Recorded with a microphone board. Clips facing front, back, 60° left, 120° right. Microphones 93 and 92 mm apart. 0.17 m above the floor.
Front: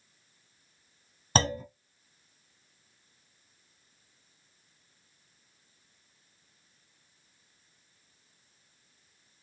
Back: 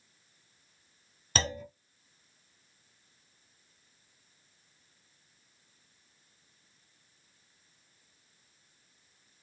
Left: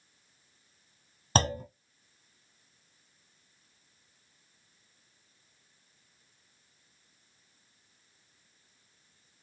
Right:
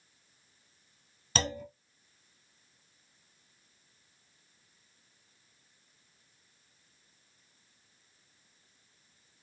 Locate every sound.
1.4 s a clunk: 35° left, 0.9 m